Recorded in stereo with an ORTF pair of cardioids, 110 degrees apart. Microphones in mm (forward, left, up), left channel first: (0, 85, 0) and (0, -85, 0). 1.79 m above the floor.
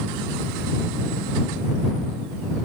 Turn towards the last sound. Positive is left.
No sound to turn to.